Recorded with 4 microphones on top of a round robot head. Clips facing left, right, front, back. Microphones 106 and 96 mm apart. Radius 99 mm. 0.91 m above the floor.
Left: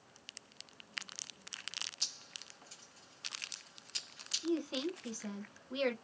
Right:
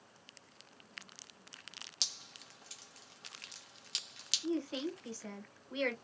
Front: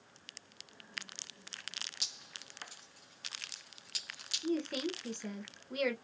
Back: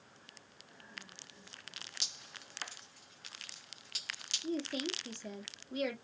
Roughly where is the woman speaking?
Ahead.